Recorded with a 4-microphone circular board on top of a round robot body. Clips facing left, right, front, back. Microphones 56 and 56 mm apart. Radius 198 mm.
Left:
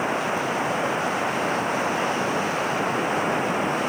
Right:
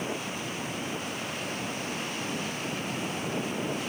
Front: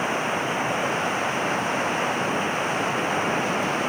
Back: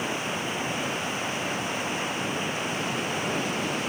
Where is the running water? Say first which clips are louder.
Left 10 dB, front 5 dB; 60° left.